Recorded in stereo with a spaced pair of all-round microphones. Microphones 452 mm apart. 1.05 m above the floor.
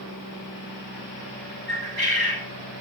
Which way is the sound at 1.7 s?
55° right (ahead or behind).